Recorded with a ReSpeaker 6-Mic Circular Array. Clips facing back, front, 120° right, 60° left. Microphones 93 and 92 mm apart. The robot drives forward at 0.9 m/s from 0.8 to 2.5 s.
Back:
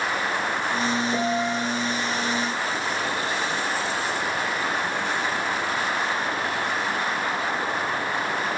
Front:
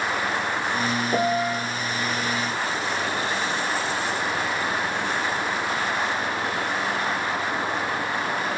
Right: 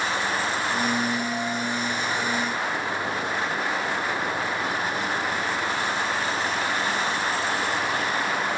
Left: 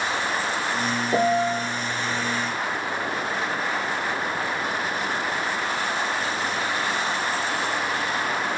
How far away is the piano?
About 0.7 m.